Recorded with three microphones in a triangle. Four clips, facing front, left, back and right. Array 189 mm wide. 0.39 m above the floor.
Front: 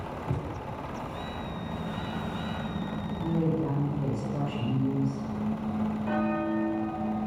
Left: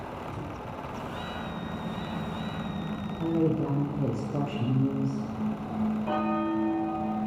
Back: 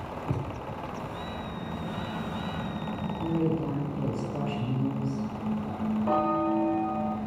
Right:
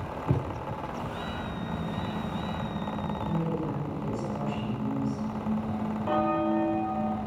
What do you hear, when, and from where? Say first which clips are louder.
0.3 s a thud: right 7 dB, back 2 dB; 95° right, 4.5 m
3.2 s a woman speaking: left 8 dB, even; 105° left, 7.5 m
6.1 s a bell: right 6 dB, back 4 dB; 175° right, 1.7 m